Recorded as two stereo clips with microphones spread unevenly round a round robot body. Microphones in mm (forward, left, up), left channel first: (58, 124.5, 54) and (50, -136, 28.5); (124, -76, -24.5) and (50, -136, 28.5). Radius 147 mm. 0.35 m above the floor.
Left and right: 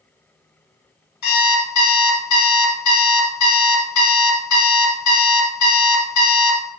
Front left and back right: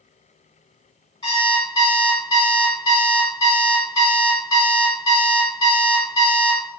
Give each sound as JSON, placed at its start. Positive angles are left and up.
{"t": 1.2, "sound": "an alarm clock", "azimuth_deg": 80, "distance_m": 1.2}